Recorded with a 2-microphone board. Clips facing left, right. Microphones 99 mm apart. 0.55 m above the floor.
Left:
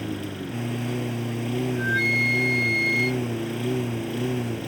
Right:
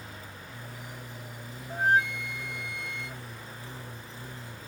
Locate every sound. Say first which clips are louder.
0.0 s a lawn mower: left 15 dB; 80° left
1.7 s a flute: left 1 dB; 50° right (ahead or behind)